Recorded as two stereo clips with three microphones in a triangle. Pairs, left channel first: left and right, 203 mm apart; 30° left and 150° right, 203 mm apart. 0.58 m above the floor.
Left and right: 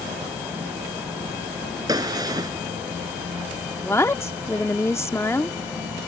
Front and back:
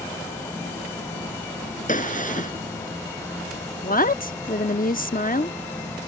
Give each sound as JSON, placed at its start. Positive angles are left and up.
{"t": 1.9, "sound": "a gunshot", "azimuth_deg": -20}
{"t": 3.8, "sound": "a woman speaking", "azimuth_deg": 20}